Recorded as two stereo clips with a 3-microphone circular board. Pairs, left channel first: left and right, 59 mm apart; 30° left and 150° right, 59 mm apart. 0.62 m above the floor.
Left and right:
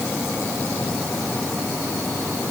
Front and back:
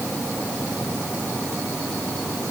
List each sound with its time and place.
Only background noise.